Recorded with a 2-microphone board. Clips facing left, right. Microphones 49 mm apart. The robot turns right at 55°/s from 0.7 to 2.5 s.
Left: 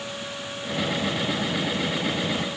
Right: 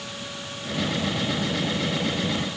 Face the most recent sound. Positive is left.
No sound to turn to.